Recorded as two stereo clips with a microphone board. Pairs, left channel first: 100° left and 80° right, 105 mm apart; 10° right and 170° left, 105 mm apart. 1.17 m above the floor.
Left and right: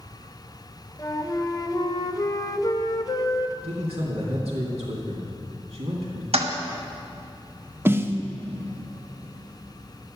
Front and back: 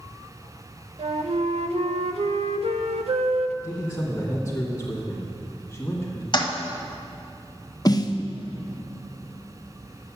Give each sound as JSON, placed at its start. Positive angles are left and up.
{"t": 1.0, "sound": "a flute", "azimuth_deg": 155, "distance_m": 0.6}
{"t": 3.6, "sound": "a man speaking", "azimuth_deg": -85, "distance_m": 2.0}
{"t": 6.3, "sound": "a toilet flushing", "azimuth_deg": -60, "distance_m": 1.2}
{"t": 7.8, "sound": "a snare drum", "azimuth_deg": -30, "distance_m": 0.6}